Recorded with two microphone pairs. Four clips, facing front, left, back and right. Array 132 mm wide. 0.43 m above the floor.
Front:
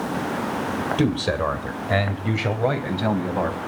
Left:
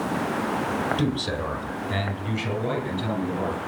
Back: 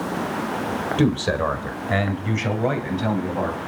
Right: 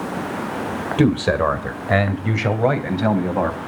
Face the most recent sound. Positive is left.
turn(degrees=-75)